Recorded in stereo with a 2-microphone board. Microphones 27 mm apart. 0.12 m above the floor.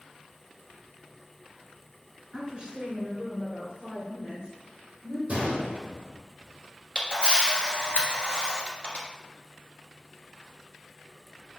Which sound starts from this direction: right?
A gunshot, at 5.3 s.